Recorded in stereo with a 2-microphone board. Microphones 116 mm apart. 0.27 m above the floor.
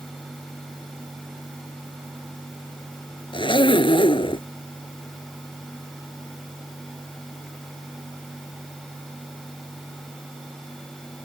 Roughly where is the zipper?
Left.